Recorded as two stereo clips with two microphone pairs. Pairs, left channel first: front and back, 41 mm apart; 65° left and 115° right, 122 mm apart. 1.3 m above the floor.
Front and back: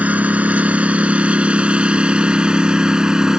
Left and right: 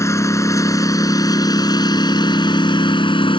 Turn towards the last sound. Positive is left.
turn(degrees=110)